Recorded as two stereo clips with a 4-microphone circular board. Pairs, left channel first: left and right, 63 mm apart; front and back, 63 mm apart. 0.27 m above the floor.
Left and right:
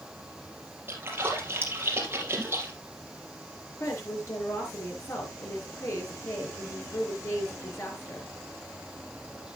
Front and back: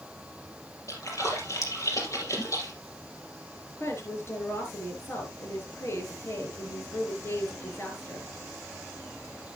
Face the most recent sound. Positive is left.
turn(degrees=50)